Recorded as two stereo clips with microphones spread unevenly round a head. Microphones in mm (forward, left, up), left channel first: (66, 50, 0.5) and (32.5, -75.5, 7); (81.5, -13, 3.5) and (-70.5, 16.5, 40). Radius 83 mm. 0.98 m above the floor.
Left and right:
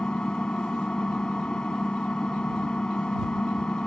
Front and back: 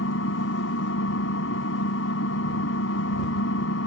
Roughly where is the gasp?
I don't hear a gasp.